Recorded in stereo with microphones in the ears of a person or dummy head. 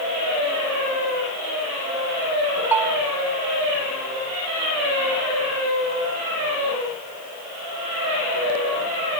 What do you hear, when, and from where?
2.7 s a bell: 10° right (ahead or behind), 0.8 m